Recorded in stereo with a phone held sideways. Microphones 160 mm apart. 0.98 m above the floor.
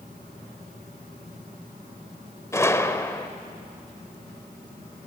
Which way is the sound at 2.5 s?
15° left (ahead or behind).